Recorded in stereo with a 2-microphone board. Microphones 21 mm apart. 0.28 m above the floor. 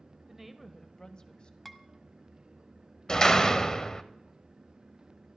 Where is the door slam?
30° left (ahead or behind), 0.8 m.